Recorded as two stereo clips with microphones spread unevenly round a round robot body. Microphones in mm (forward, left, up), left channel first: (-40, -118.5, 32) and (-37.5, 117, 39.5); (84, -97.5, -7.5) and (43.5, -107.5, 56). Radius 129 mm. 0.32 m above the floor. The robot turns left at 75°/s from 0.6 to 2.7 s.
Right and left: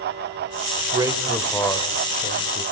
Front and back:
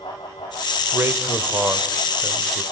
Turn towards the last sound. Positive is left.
turn(degrees=-100)